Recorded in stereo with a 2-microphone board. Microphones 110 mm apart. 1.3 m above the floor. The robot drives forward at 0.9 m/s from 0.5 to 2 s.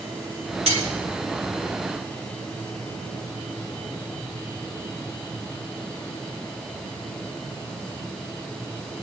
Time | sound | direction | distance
0.7 | cutlery clinking | 70° right (ahead or behind) | 3 m